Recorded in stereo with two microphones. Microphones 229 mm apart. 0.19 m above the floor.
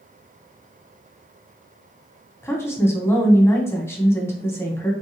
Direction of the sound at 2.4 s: 10° left (ahead or behind).